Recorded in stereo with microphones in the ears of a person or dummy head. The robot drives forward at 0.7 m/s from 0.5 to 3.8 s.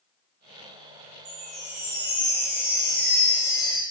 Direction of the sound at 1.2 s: 45° right (ahead or behind).